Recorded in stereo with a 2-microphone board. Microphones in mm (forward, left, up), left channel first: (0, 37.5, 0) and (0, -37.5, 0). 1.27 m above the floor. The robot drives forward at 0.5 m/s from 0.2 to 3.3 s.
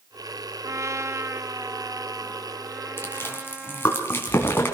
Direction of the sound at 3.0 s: 35° left (ahead or behind).